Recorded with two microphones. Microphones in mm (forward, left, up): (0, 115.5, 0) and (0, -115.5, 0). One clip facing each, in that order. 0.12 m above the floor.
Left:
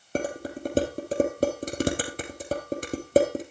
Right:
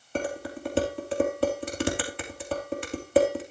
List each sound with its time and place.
0.1 s dishes clattering: 40° left (ahead or behind), 2 m